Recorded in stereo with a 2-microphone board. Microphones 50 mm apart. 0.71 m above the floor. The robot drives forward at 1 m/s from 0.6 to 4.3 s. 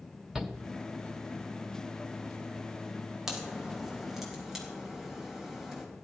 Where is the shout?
10° right (ahead or behind), 1.5 m.